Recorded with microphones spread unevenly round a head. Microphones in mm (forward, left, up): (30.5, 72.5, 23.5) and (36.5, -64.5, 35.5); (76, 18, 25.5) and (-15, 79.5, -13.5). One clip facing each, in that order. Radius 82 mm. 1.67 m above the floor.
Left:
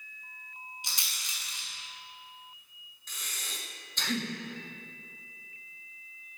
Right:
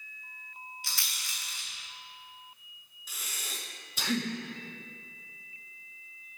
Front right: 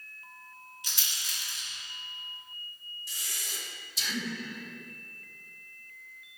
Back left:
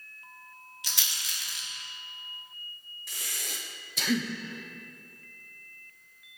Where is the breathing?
170° right, 1.0 m.